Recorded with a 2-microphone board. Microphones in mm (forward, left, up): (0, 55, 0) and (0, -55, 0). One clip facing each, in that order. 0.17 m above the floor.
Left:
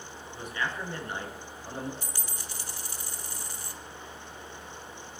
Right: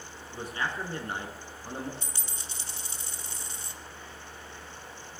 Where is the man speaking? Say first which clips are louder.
Right 1 dB; 35° right (ahead or behind), 2 m.